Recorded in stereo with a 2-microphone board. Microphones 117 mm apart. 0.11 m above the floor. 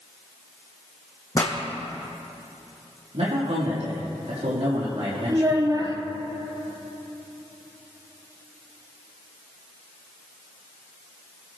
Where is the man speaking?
75° right (ahead or behind), 4.5 m.